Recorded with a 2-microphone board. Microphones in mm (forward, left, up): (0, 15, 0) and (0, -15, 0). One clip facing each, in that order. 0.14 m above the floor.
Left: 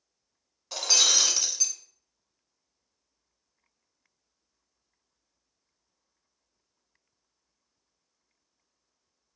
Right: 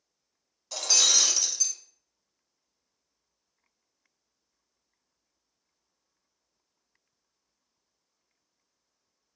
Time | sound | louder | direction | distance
0.7 | breaking glass | left 1 dB | 20° left (ahead or behind) | 0.9 m